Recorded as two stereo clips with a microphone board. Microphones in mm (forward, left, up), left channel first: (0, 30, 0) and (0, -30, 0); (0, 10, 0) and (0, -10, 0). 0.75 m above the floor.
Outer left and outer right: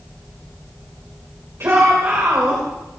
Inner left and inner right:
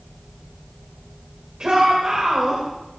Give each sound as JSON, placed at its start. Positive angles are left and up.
{"t": 1.6, "sound": "a shout", "side_deg": -50, "distance_m": 3.5}